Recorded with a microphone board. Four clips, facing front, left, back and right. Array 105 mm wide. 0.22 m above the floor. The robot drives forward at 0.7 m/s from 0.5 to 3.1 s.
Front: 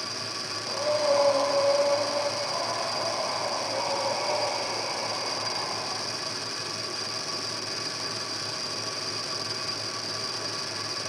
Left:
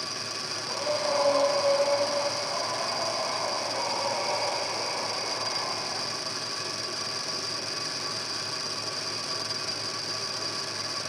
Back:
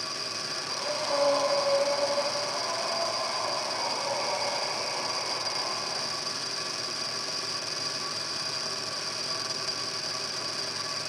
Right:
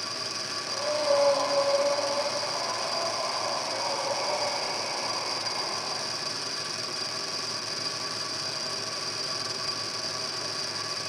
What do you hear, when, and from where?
0.7 s breathing: 5° right, 7.5 m; by 6.0 s 10° right, 6 m